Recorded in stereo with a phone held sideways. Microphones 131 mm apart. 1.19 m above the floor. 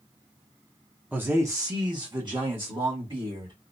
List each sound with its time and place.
1.1 s a man speaking: 15° right (ahead or behind), 0.6 m; by 3.5 s 45° right (ahead or behind), 1.7 m